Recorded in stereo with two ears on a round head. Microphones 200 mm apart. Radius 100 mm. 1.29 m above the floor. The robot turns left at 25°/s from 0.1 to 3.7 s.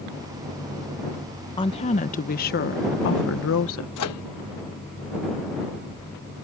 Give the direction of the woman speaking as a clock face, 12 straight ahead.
7 o'clock.